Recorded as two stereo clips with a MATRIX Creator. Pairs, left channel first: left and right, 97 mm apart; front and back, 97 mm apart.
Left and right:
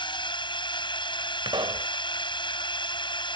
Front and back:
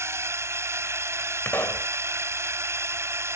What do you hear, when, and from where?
0.0 s a drone: 120° left
1.4 s a pop: 65° right